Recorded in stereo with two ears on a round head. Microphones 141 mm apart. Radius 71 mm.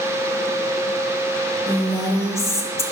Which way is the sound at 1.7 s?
20° left (ahead or behind).